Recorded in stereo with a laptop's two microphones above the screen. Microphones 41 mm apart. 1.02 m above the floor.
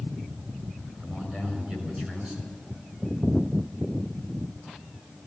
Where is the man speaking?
25° right (ahead or behind), 5.5 m.